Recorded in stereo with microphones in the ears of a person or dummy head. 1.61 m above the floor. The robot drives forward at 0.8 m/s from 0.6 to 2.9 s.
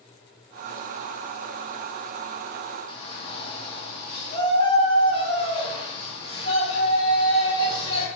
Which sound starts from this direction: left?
A shout, at 2.9 s.